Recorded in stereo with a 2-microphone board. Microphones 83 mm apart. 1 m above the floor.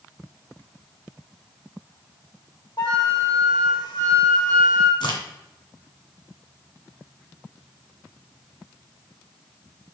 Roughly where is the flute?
Left.